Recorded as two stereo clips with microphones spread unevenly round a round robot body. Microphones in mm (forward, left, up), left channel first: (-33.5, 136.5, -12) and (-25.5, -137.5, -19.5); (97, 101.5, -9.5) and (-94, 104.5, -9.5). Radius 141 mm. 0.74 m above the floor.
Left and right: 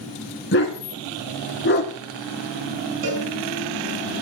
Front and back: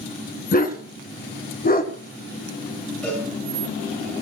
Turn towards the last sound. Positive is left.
turn(degrees=-85)